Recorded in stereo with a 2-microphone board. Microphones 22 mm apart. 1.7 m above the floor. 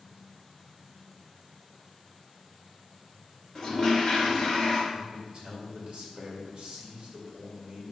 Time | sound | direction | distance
3.5 | a toilet flushing | 30° left (ahead or behind) | 4 m
4.9 | a man speaking | 40° right (ahead or behind) | 3 m